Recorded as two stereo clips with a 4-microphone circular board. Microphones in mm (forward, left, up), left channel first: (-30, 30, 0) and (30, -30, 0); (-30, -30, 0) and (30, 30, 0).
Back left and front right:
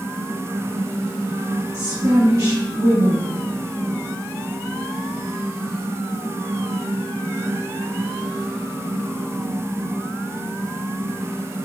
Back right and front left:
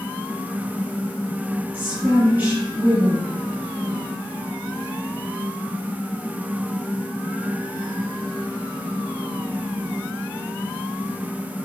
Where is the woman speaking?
10° right, 1.2 m.